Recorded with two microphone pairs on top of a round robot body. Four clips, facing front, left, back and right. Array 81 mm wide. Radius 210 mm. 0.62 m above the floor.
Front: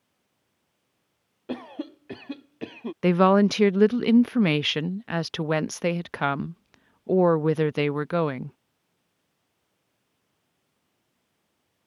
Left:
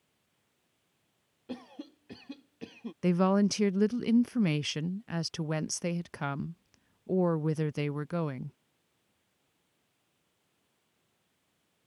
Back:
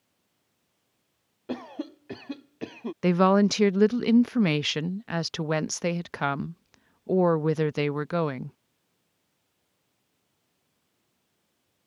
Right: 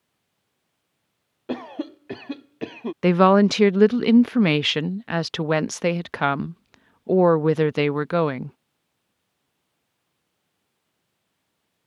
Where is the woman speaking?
90° right.